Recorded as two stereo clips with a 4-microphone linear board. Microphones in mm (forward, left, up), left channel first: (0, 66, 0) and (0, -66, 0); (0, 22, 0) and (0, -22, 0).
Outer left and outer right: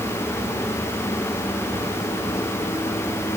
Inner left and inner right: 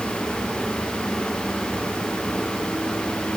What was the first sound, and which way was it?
Only background noise.